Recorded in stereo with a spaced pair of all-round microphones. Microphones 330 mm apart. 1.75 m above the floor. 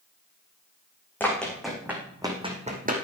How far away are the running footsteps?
About 4.5 m.